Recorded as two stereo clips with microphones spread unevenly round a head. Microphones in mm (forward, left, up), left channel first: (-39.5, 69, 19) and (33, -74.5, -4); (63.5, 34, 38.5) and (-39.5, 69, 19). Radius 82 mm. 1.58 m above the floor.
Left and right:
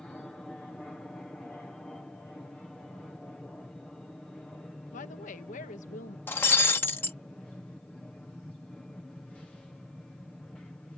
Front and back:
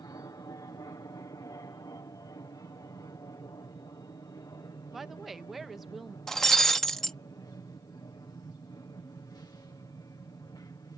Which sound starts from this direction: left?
A woman speaking, at 4.9 s.